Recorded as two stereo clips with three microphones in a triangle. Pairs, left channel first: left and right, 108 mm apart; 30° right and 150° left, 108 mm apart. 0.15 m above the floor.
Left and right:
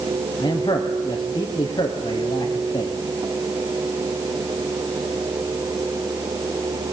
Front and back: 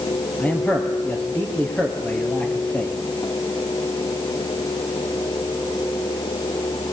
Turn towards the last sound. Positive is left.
turn(degrees=45)